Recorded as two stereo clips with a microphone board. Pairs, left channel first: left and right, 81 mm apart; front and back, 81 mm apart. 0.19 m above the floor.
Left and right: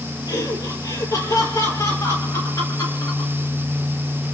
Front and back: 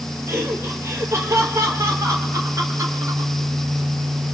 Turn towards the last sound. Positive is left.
turn(degrees=130)